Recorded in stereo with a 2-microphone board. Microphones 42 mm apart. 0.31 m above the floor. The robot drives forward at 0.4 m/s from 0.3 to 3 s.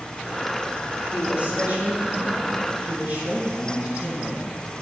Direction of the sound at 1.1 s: 30° right (ahead or behind).